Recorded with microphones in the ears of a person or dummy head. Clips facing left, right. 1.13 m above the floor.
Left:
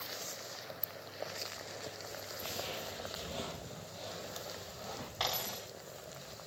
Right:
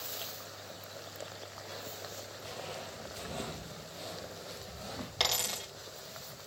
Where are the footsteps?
30° left (ahead or behind), 1.3 m; by 5.1 s 15° right (ahead or behind), 2.5 m.